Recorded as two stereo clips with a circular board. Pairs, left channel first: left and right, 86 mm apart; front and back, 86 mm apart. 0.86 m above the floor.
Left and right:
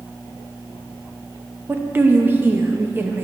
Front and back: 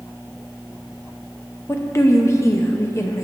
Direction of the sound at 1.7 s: 35° right.